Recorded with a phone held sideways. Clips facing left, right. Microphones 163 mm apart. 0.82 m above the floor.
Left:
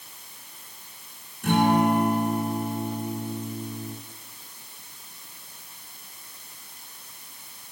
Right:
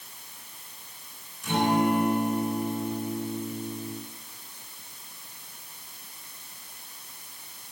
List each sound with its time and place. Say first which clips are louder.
1.4 s a guitar: left 3 dB; 55° left (ahead or behind), 9.5 m